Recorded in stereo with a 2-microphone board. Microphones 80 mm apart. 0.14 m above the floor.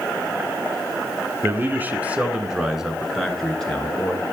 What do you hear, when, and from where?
1.4 s a man speaking: 30° right (ahead or behind), 1.9 m; by 4.2 s 15° left (ahead or behind), 3 m